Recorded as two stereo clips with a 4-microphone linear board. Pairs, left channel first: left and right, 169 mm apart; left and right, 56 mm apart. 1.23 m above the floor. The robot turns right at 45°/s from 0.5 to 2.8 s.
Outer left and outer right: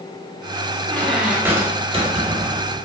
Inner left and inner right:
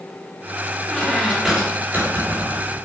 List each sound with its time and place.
0.9 s a squeak: 170° left, 2 m; by 2.8 s 105° right, 2 m